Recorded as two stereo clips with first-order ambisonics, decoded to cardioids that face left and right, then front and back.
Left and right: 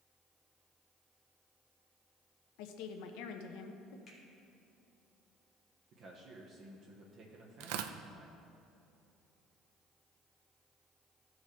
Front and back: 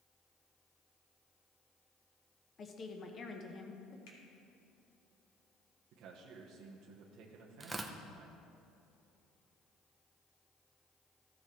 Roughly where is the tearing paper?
Right.